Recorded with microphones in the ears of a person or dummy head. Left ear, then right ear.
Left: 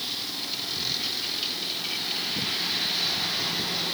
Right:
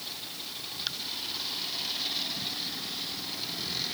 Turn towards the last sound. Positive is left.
No sound to turn to.